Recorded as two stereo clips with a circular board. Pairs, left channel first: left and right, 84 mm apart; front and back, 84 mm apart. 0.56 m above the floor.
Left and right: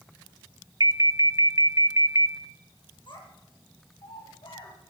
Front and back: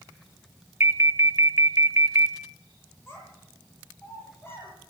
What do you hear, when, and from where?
0.8 s an alarm: 125° right, 0.6 m
3.1 s a child speaking: 65° left, 8.5 m